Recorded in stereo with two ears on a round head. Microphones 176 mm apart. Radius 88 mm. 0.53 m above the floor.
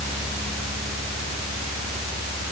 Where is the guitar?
No guitar in this recording.